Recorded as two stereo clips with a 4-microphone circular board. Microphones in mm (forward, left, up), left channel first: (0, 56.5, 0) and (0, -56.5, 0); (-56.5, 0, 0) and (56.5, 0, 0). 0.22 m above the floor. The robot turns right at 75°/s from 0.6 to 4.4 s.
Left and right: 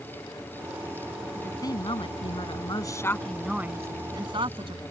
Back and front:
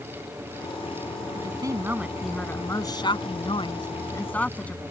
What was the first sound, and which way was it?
A woman speaking, 25° left.